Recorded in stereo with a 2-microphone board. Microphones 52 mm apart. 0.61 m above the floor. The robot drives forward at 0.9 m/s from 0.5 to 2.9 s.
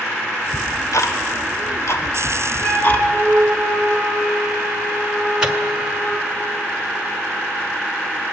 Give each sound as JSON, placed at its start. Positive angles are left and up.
{"t": 0.5, "sound": "ticking", "side_deg": 65, "distance_m": 1.3}
{"t": 2.6, "sound": "a flute", "side_deg": 10, "distance_m": 4.0}
{"t": 5.4, "sound": "a microwave", "side_deg": -15, "distance_m": 1.8}